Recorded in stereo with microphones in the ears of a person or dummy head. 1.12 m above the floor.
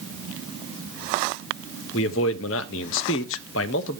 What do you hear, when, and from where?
1.9 s a man speaking: 70° left (ahead or behind), 1.1 m